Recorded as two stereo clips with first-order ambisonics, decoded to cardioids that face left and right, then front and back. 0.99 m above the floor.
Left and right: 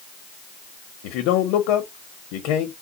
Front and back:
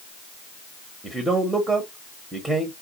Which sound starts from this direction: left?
A man speaking, at 1.0 s.